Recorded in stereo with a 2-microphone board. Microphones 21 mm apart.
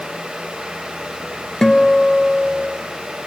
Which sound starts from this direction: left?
A guitar, at 1.6 s.